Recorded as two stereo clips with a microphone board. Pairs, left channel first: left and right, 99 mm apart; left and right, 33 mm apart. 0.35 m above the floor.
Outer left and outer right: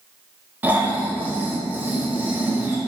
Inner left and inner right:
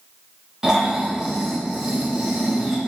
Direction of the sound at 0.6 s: 20° right (ahead or behind).